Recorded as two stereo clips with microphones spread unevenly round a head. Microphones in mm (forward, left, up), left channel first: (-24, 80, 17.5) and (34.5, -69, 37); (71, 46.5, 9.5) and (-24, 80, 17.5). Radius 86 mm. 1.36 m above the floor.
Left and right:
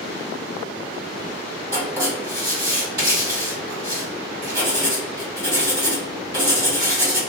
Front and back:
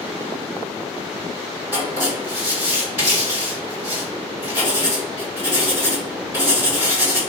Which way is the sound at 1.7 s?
135° right.